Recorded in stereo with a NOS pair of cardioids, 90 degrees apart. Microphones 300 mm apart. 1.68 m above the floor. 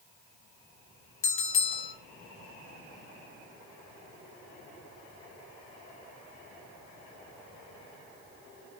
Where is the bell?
45° left, 3 m.